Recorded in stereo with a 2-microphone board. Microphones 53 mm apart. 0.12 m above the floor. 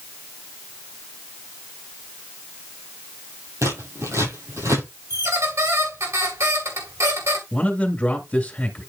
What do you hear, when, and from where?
3.6 s scissors: 75° right (ahead or behind), 6 m
5.1 s a squeak: 75° right (ahead or behind), 2.5 m
7.5 s a man speaking: 20° left (ahead or behind), 2 m